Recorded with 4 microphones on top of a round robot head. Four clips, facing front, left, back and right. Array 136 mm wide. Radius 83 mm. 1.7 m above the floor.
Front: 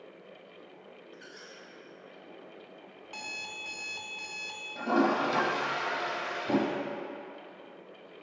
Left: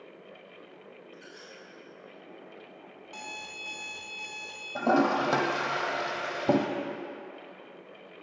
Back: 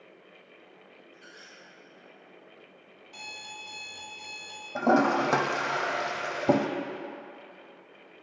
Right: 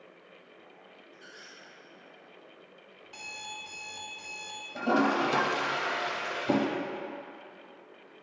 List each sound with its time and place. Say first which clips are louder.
1.1 s a squeak: left 3 dB, front 2 dB; 10° left, 2 m
3.0 s an alarm clock: left 1 dB, front 1 dB; 5° left, 0.9 m
4.8 s a toilet flushing: left 2 dB, back 4 dB; 150° left, 0.8 m